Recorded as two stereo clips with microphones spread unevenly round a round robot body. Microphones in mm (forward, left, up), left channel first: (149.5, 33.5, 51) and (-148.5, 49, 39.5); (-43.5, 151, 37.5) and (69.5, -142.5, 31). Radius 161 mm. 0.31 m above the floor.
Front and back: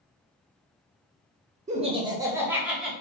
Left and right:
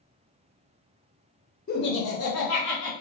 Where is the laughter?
145° left, 0.9 m; by 2.9 s 90° left, 1.5 m.